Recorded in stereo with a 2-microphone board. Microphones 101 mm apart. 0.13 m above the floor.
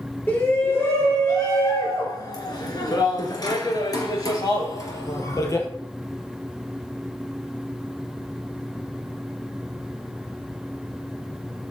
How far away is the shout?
About 2.5 m.